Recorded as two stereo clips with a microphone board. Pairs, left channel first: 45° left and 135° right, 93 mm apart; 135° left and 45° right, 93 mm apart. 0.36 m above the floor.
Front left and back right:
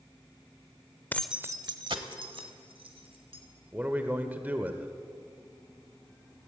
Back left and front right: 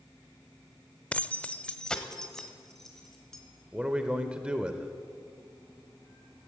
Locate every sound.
1.1 s keys jangling: 80° left, 0.5 m; by 3.4 s 140° right, 3 m
3.7 s a man speaking: 105° right, 1.0 m